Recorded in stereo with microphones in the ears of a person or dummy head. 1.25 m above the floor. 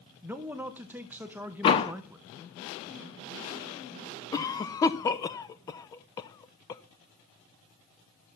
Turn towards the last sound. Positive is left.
turn(degrees=20)  # may be behind; listen again after turning